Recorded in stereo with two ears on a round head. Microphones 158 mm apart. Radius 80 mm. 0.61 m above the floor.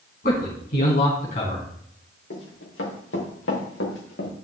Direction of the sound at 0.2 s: 50° left (ahead or behind).